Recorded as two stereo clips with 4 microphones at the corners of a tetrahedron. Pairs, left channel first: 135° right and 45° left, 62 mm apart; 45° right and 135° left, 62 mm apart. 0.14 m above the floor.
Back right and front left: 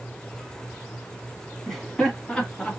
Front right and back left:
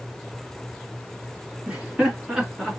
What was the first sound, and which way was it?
Laughter, 155° left.